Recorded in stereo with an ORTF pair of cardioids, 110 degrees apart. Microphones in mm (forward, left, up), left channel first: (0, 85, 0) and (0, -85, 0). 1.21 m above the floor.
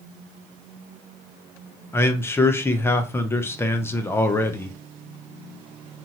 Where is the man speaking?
15° left, 0.6 m.